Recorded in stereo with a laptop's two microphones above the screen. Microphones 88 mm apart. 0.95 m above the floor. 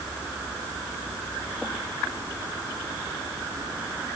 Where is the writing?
I don't hear writing.